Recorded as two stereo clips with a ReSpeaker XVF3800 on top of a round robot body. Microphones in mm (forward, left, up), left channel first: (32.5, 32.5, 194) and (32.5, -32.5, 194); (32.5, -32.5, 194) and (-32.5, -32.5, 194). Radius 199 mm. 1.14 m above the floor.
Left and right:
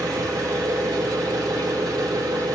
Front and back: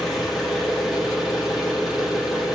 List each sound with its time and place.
0.0 s an engine running: 95° right, 3 m